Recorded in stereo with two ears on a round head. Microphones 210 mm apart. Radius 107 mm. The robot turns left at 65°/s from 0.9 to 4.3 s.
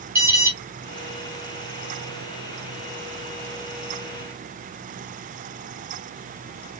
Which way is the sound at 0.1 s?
10° right (ahead or behind).